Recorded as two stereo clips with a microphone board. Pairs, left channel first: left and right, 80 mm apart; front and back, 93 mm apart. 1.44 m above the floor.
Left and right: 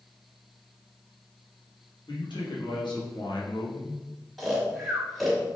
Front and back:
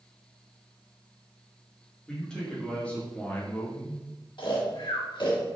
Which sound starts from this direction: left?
A man speaking, at 2.1 s.